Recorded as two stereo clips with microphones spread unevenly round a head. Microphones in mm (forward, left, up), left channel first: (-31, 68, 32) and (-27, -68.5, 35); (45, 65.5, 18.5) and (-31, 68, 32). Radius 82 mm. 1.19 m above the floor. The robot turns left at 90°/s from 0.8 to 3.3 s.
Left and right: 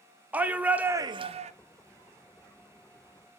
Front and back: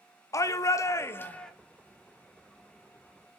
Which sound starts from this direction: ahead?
A shout, at 0.3 s.